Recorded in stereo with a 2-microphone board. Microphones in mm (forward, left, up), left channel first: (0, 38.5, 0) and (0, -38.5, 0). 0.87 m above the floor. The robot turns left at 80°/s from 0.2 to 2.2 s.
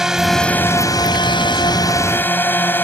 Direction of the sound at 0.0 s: 175° right.